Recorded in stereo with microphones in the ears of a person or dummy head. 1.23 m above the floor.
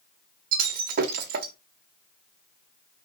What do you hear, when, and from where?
0.5 s breaking glass: 50° right (ahead or behind), 1.5 m